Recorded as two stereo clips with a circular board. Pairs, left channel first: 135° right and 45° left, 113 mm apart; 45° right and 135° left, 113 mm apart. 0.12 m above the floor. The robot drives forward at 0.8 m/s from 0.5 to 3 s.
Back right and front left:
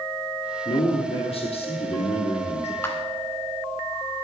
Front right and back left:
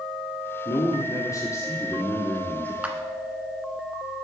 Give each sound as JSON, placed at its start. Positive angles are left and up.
{"t": 0.7, "sound": "a man speaking", "azimuth_deg": -95, "distance_m": 3.5}
{"t": 2.8, "sound": "a clap", "azimuth_deg": -165, "distance_m": 1.4}